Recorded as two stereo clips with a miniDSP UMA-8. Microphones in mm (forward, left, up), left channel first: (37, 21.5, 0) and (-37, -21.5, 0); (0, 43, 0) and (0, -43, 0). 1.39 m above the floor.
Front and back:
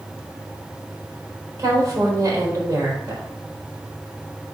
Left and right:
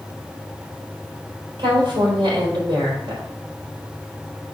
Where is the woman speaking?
110° right, 4.5 m.